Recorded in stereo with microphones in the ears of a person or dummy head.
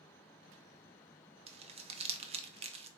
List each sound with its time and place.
1.5 s crumpling: 30° right (ahead or behind), 0.5 m